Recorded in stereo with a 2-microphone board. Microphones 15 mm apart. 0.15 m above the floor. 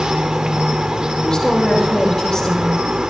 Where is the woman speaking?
60° left (ahead or behind), 6.5 m.